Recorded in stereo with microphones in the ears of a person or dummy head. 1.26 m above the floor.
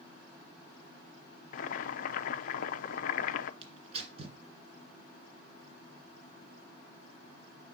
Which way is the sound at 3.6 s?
35° right (ahead or behind).